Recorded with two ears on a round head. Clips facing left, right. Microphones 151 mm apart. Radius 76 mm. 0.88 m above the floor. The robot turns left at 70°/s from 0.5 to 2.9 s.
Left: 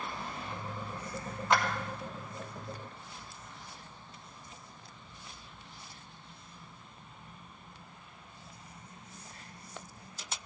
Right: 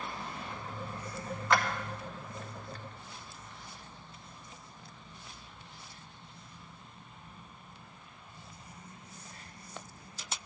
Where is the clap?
15° left (ahead or behind), 1.0 m; by 1.6 s 25° left (ahead or behind), 1.0 m.